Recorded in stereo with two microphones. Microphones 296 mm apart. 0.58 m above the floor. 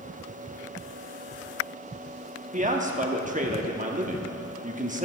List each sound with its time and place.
2.5 s a man speaking: 25° right (ahead or behind), 0.8 m